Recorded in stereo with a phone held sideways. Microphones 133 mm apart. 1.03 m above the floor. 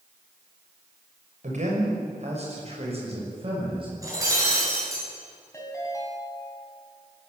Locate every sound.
1.4 s a man speaking: 60° right (ahead or behind), 5.5 m; by 3.9 s 40° right (ahead or behind), 6.5 m
4.0 s breaking glass: 25° right (ahead or behind), 8.5 m
5.5 s a ringtone: 20° left (ahead or behind), 6 m